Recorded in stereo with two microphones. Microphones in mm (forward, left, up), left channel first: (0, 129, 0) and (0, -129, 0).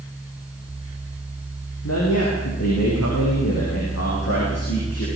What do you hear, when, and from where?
1.8 s a man speaking: 80° left, 6.5 m; by 5.1 s 65° left (ahead or behind), 8 m